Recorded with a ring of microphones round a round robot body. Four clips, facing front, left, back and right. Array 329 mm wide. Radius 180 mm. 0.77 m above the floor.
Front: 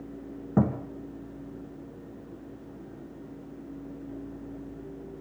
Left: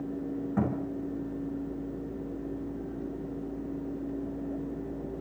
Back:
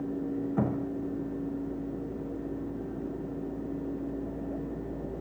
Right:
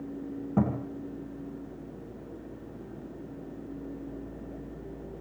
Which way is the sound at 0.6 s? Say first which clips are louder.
Right 3 dB, front 6 dB; 20° right.